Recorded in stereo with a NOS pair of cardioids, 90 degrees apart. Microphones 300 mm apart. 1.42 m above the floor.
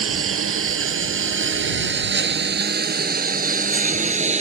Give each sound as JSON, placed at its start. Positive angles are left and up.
{"t": 0.0, "sound": "a lawn mower", "azimuth_deg": -50}